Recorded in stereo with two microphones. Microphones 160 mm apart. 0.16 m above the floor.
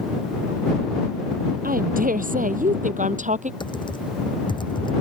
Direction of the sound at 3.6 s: 30° left (ahead or behind).